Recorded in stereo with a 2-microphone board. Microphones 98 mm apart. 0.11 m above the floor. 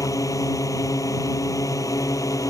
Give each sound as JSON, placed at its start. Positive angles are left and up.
{"t": 0.0, "sound": "a drone", "side_deg": 35}